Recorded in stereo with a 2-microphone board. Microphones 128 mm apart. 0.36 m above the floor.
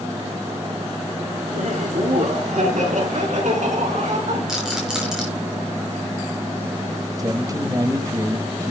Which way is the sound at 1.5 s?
75° right (ahead or behind).